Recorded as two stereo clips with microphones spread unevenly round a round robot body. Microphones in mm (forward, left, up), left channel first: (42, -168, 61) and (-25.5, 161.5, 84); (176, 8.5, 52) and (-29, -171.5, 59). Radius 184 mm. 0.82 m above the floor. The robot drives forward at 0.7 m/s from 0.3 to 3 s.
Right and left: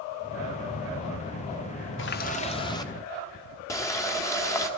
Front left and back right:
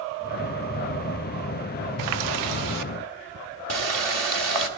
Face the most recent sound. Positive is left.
turn(degrees=-160)